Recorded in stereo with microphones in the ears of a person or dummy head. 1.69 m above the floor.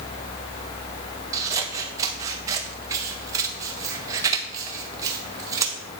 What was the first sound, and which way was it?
Scissors, 20° right (ahead or behind).